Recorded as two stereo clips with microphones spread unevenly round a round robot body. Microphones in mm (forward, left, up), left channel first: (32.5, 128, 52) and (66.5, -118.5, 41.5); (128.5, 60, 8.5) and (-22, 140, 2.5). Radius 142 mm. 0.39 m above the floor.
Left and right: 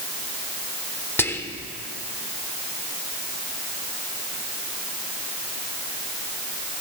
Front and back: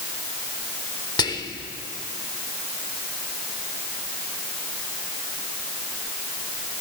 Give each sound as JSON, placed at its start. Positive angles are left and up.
{"t": 1.2, "sound": "whispering", "azimuth_deg": 20, "distance_m": 0.9}